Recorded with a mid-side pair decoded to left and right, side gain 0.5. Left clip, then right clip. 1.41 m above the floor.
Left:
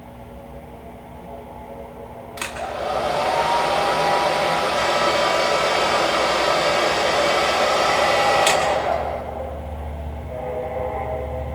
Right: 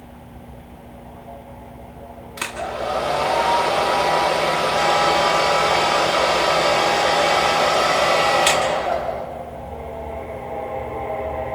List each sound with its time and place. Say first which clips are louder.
2.4 s a hair dryer: right 1 dB; straight ahead, 8.5 m